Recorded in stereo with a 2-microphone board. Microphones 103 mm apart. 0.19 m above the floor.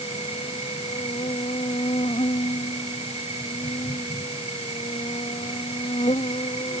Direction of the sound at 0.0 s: 80° left.